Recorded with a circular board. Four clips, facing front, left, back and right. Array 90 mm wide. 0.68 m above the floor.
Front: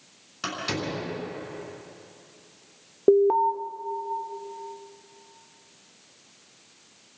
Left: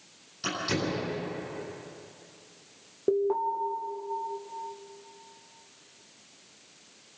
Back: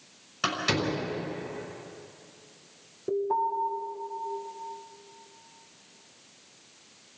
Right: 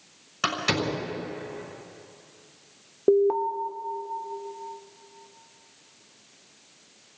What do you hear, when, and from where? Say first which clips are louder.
0.4 s a door slam: right 4 dB, back 3 dB; 105° right, 6 m
3.1 s an alarm: right 5 dB, front 9 dB; 25° right, 1.5 m